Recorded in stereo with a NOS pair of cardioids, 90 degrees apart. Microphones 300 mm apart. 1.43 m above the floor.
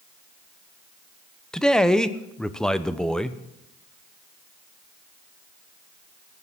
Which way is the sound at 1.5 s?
Straight ahead.